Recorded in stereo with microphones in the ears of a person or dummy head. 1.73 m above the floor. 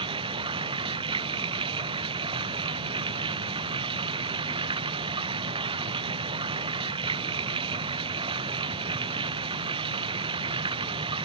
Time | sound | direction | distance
0.0 | running water | 30° right (ahead or behind) | ?